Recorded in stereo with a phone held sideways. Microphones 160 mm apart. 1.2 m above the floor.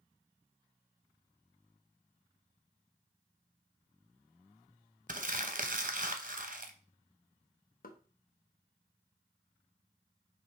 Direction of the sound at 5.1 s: 55° right (ahead or behind).